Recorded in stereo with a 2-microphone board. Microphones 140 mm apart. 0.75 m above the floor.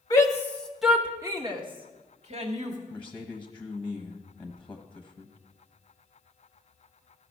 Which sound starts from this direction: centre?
A man speaking, at 2.9 s.